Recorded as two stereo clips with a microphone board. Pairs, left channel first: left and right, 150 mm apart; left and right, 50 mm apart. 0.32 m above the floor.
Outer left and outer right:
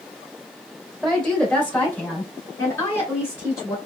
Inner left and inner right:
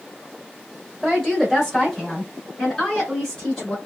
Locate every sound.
1.0 s a woman speaking: 5° left (ahead or behind), 1.6 m; by 3.8 s 20° left (ahead or behind), 1.8 m